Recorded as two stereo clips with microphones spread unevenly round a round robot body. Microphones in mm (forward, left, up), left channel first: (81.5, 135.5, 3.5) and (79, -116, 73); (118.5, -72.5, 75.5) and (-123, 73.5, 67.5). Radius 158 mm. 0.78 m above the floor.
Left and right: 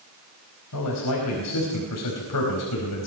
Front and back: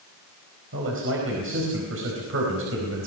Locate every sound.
0.7 s a man speaking: 100° left, 4.5 m